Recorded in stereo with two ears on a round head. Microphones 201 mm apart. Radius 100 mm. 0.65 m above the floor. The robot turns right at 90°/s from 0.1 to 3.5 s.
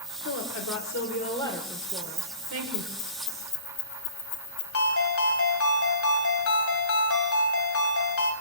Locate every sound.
0.2 s a woman speaking: 55° left, 2.5 m; by 2.9 s 70° right, 2.5 m
1.9 s keys jangling: 50° right (ahead or behind), 4.5 m; by 4.6 s 85° left, 4.5 m
4.7 s a ringtone: 65° left (ahead or behind), 2.5 m